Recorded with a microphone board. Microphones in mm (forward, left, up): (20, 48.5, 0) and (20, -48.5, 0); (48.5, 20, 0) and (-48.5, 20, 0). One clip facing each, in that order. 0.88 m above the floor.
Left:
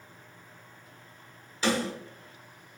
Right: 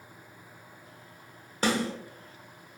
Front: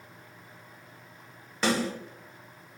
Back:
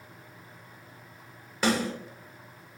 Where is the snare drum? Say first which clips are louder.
Even, back 1 dB; 95° right, 1.4 m.